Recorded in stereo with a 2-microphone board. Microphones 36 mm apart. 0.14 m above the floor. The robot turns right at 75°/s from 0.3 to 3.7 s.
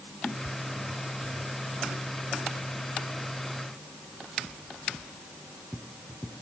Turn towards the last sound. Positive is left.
No sound to turn to.